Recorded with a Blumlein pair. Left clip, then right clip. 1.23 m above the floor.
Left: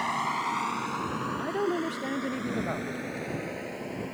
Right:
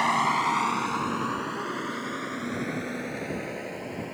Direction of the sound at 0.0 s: 20° right.